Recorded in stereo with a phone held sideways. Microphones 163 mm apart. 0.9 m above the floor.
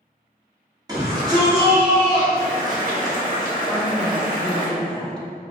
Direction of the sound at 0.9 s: 25° right (ahead or behind).